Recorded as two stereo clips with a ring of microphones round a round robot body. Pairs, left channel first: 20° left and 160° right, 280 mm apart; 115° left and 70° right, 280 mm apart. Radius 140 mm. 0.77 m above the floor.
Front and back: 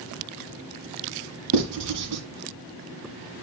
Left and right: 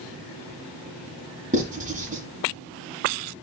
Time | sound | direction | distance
1.5 | writing | 130° right | 2.0 m